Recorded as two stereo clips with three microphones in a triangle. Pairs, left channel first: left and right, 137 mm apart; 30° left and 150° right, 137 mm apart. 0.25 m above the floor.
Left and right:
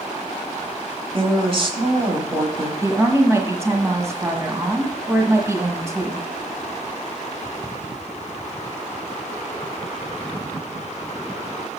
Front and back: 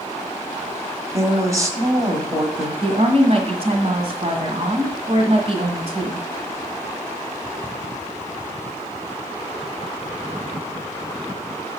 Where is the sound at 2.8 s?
150° right, 1.6 m.